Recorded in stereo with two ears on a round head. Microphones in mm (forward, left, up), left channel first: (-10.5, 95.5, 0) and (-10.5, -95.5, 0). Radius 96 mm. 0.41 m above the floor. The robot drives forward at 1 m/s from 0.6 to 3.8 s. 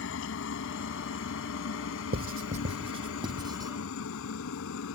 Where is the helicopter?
60° left (ahead or behind); by 5.0 s 70° left (ahead or behind).